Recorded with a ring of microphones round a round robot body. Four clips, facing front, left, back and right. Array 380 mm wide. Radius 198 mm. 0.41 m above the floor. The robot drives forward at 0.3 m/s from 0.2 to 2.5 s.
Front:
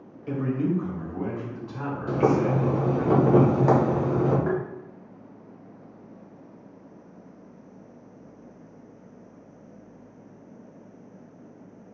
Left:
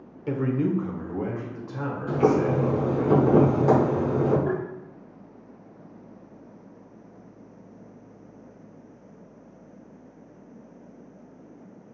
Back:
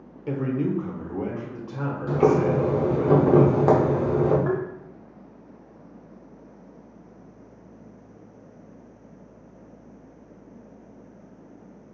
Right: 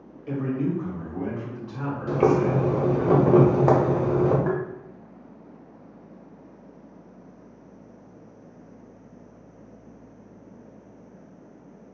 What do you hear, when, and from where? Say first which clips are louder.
0.3 s a man speaking: left 2 dB, back 1 dB; 120° left, 1.2 m; by 3.1 s 145° left, 1.6 m
2.1 s boiling: right 1 dB, back 2 dB; 130° right, 1.4 m; by 4.4 s 135° right, 1.4 m
4.5 s tapping: right 1 dB, back 1 dB; 105° right, 0.9 m